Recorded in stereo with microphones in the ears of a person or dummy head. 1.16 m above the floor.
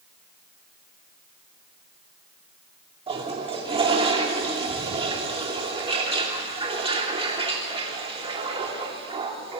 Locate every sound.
3.1 s a toilet flushing: 30° right (ahead or behind), 2.5 m